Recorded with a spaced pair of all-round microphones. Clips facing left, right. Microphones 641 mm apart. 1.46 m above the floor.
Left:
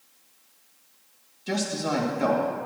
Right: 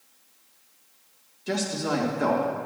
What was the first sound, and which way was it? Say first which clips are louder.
A man speaking: even; 5° left (ahead or behind).